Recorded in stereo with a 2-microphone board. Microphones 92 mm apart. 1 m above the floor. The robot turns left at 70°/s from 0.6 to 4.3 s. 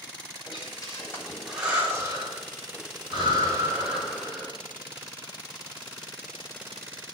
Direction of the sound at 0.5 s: 65° left (ahead or behind).